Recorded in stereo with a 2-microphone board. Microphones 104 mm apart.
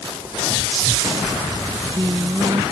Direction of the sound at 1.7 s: 40° right (ahead or behind).